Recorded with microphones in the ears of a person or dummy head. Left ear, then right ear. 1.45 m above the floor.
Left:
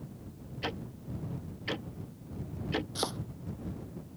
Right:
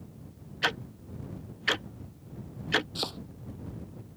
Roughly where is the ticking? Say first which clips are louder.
Right 8 dB; right.